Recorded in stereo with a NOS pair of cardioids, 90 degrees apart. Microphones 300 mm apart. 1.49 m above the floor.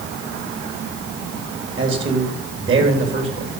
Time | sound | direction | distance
1.8 | a man speaking | 40° right | 3 m